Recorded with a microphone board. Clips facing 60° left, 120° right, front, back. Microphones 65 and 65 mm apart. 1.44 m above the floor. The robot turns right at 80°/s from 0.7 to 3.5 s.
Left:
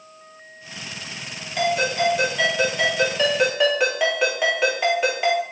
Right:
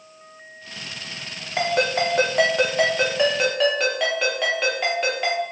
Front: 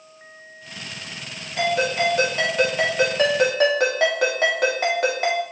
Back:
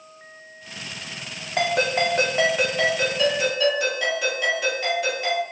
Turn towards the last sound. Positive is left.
turn(degrees=-25)